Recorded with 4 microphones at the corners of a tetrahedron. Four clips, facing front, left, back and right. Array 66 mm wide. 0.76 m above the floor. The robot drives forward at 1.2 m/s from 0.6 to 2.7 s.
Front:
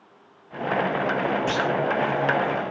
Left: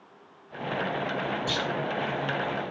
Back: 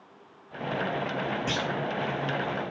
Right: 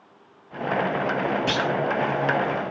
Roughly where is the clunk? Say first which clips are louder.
Right 6 dB, front 6 dB; right.